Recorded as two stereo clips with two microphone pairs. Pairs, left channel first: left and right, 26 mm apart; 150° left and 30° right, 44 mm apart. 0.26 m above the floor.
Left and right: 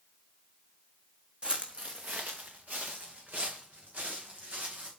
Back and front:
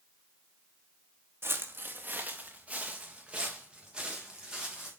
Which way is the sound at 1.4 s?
50° right.